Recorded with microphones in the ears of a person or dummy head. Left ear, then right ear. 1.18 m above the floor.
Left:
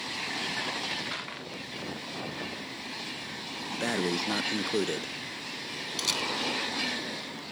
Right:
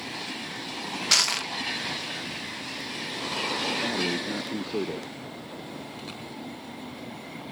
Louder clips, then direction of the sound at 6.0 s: Left 10 dB; 75° left (ahead or behind).